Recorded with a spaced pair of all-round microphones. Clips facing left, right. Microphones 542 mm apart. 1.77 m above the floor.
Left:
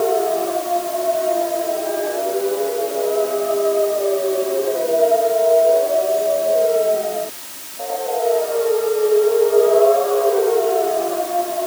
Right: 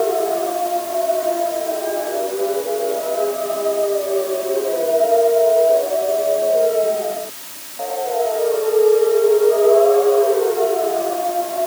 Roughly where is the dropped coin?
I don't hear a dropped coin.